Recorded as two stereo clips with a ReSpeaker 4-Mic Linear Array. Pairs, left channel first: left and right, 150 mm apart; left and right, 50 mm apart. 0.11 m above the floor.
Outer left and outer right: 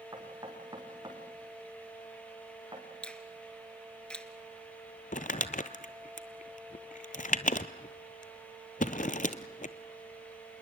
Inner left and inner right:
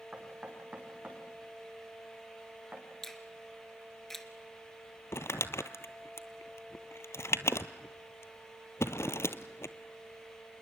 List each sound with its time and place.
0.1 s knocking: 25° right (ahead or behind), 5.5 m
3.0 s a finger snap: 5° left (ahead or behind), 1.4 m
5.1 s crumpling: 65° left (ahead or behind), 0.9 m